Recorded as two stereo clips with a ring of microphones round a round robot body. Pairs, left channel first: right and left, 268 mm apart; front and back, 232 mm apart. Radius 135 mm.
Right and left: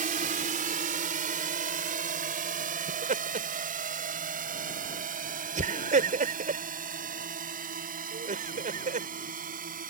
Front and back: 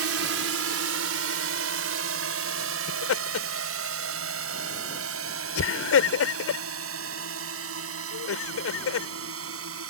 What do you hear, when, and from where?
0.0 s a drone: 155° left; by 9.9 s 150° left
2.9 s laughter: 25° left